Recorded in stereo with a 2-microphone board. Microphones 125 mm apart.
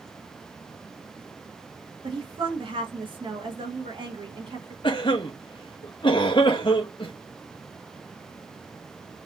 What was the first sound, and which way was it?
A woman speaking, 45° right (ahead or behind).